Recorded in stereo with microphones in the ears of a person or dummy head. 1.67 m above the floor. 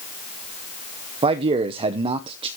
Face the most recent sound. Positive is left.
turn(degrees=-35)  # may be behind; listen again after turning